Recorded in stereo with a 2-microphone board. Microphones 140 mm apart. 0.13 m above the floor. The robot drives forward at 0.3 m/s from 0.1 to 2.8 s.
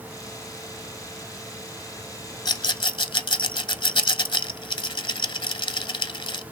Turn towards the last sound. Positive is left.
turn(degrees=35)  # may be behind; listen again after turning